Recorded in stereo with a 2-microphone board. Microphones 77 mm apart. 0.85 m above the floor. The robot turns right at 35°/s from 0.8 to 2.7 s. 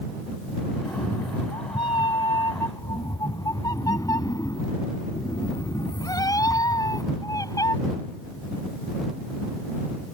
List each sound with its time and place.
0.8 s a cat meowing: 65° left; by 7.8 s 130° left